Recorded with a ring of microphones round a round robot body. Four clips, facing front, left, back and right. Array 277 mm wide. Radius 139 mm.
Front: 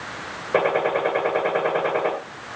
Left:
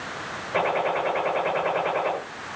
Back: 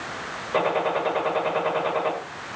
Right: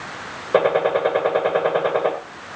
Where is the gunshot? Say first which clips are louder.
Right 7 dB, front 3 dB; 70° right, 9 m.